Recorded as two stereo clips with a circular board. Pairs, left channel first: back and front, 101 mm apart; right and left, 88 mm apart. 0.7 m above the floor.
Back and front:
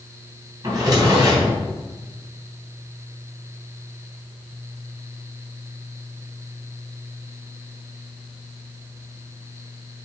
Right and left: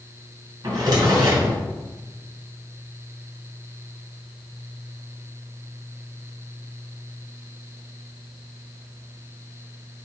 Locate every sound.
0.6 s a drawer: 50° left, 2.5 m